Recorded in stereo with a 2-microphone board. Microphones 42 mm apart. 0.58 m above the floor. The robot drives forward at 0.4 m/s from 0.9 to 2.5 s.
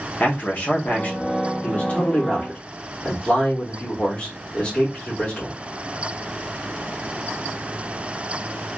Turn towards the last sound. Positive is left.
turn(degrees=30)  # may be behind; listen again after turning